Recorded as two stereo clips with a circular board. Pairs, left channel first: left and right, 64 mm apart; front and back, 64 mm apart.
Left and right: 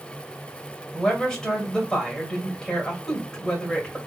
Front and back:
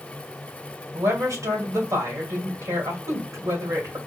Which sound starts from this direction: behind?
A woman speaking, at 0.9 s.